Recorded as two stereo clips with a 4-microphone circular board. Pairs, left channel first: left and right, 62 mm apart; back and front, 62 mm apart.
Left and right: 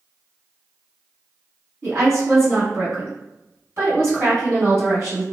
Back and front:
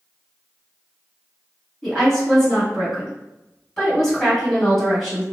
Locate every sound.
1.8 s a woman speaking: 100° right, 1.8 m